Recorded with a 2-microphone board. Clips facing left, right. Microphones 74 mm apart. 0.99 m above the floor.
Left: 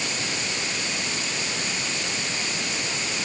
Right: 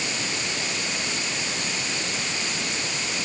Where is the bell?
No bell in this recording.